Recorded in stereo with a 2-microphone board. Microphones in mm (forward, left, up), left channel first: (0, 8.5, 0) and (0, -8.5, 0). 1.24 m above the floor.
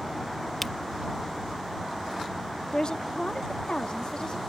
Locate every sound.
0.6 s a camera shutter: 10° left (ahead or behind)
2.7 s a woman speaking: 50° left (ahead or behind)